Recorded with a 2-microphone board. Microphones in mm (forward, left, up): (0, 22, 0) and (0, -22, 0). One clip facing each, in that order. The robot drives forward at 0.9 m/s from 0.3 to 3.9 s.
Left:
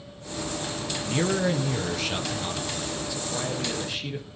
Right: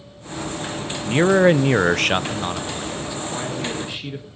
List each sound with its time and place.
1.1 s a man speaking: 40° right (ahead or behind), 0.8 m; by 4.3 s 15° right (ahead or behind), 2 m